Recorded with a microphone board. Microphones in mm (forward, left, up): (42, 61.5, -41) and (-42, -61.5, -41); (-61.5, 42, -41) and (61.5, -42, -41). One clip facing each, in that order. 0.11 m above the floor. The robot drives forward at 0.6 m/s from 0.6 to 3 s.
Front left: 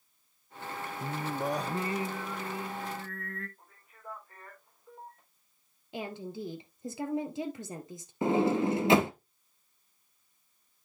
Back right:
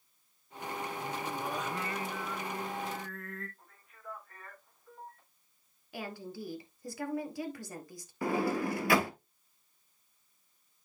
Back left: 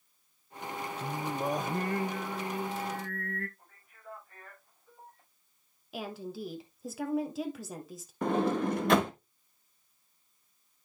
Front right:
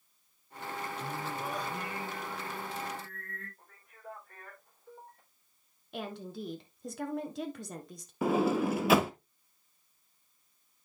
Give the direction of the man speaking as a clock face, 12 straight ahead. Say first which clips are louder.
Front left 1 dB, front right 4 dB; 12 o'clock.